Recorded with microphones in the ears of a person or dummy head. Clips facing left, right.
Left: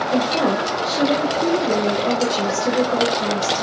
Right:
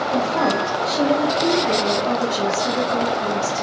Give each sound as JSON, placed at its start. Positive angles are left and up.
{"t": 0.1, "sound": "a woman speaking", "side_deg": 30, "distance_m": 0.9}